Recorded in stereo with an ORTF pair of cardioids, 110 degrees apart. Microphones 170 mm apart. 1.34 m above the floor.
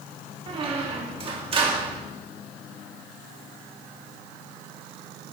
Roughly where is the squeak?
Ahead right.